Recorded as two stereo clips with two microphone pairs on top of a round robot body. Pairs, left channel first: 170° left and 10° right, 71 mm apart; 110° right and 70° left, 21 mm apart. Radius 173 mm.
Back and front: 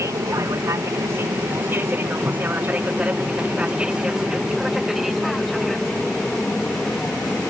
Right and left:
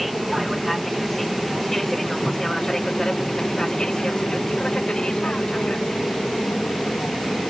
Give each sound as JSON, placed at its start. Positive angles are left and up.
{"t": 0.0, "sound": "an aircraft", "azimuth_deg": -10}